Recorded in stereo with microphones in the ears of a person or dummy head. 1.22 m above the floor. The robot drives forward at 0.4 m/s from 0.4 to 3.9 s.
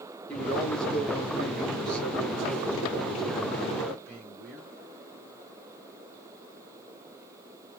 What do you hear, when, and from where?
0.3 s a man speaking: 5° left (ahead or behind), 1.0 m; by 4.6 s centre (ahead or behind), 2.5 m